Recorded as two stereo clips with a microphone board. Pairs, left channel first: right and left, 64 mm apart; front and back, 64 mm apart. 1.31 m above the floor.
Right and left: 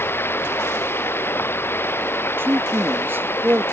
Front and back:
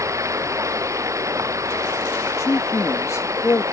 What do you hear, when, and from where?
0.0 s running water: 145° right
2.4 s a man speaking: 35° left